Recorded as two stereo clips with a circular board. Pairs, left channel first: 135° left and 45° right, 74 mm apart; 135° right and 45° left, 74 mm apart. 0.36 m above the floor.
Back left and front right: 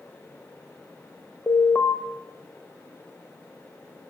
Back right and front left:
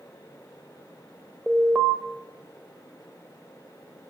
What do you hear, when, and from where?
1.5 s an alarm: 115° left, 1.2 m